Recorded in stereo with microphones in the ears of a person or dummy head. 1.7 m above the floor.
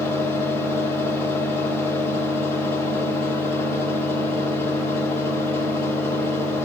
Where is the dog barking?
No dog barking in this recording.